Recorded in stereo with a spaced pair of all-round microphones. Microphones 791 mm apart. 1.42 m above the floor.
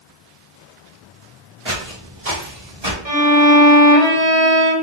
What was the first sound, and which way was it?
Footsteps, 40° right (ahead or behind).